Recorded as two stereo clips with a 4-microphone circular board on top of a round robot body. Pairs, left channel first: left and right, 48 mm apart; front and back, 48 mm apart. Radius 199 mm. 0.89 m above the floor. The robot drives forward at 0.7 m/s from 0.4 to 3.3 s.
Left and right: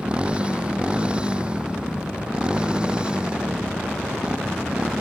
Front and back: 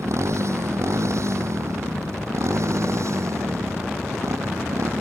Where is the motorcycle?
160° right.